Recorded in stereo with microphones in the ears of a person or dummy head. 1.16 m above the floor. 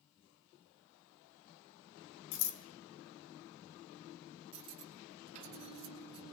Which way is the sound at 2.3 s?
60° left (ahead or behind).